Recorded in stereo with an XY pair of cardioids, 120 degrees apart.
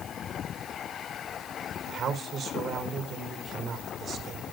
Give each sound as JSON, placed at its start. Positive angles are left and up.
{"t": 1.9, "sound": "a man speaking", "azimuth_deg": -60, "distance_m": 4.0}